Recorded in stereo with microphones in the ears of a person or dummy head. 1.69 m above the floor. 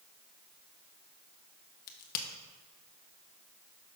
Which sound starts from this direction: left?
A crack, at 1.9 s.